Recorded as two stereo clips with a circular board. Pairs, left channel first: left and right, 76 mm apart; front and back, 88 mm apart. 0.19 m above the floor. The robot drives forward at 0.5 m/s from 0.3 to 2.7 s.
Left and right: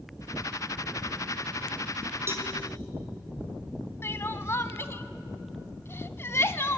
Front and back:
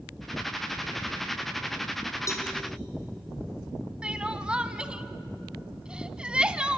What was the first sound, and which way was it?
A cowbell, 40° right.